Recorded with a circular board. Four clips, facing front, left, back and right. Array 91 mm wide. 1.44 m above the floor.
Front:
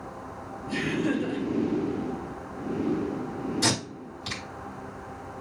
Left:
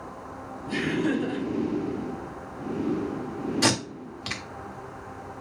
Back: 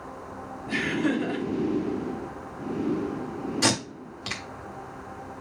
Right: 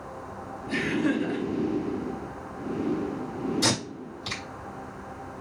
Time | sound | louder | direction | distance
0.7 | laughter | even, back 1 dB | straight behind | 2 m
3.6 | tape being pulled | left 2 dB, back 2 dB | 130° left | 1.4 m